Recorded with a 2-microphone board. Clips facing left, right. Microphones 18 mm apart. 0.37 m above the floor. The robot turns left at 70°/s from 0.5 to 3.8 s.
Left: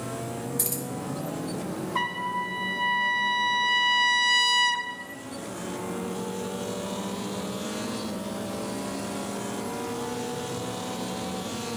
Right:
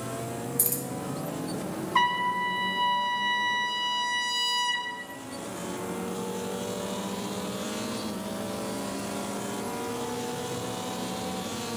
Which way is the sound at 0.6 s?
15° left (ahead or behind).